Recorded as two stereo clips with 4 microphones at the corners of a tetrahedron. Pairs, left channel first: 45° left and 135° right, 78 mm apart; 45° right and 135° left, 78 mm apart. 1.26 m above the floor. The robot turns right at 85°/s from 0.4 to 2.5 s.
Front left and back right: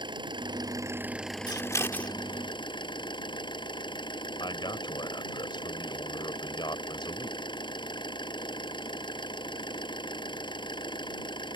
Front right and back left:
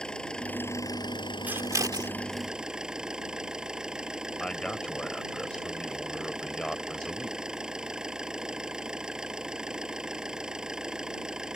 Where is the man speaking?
35° left.